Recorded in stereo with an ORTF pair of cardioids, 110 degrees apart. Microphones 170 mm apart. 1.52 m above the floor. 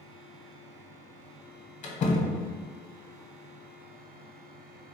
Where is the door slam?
45° left, 1.2 m.